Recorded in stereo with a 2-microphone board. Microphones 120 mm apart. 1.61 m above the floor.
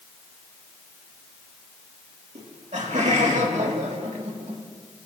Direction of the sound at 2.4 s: 70° right (ahead or behind).